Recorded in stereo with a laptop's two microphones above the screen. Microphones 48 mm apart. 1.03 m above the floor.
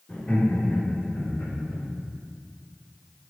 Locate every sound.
0.1 s laughter: 45° left (ahead or behind), 3 m; by 1.9 s 65° left (ahead or behind), 4 m